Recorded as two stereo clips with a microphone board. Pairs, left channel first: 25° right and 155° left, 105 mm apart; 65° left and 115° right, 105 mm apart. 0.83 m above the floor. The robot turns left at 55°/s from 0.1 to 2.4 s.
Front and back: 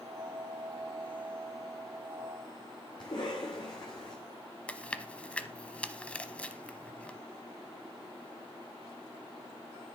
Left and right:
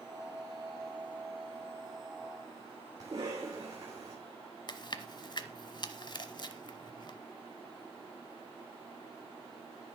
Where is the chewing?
50° left, 0.9 m.